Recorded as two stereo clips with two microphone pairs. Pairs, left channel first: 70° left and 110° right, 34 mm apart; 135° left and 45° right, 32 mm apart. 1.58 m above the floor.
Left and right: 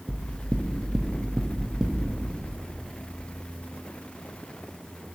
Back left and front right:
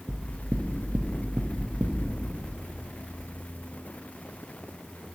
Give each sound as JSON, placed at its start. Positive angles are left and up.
{"t": 0.1, "sound": "knocking", "azimuth_deg": -25, "distance_m": 0.5}